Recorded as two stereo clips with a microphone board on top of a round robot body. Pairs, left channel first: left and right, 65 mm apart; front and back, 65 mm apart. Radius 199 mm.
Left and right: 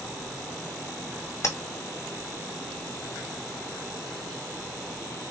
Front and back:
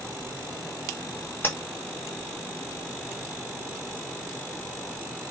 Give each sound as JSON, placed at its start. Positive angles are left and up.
{"t": 1.4, "sound": "tapping", "azimuth_deg": 55, "distance_m": 1.9}